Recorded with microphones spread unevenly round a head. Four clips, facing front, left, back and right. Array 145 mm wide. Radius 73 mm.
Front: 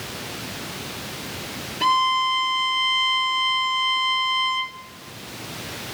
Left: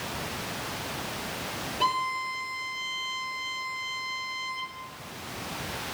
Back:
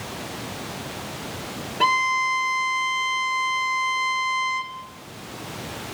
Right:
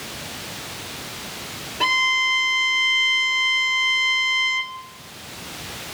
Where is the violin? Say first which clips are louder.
Right 5 dB, front 2 dB; 165° right, 1.3 m.